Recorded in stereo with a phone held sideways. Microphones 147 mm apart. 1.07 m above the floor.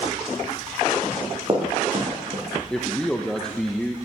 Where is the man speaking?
5° left (ahead or behind), 0.5 m.